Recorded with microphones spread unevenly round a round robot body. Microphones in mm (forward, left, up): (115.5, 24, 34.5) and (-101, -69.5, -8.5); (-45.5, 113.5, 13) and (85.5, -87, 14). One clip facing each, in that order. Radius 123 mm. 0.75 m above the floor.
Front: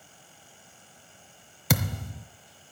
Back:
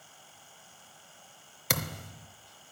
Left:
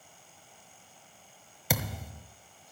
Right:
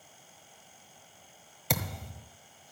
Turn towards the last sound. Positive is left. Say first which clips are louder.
# front 7 dB, left 1 dB
turn(degrees=40)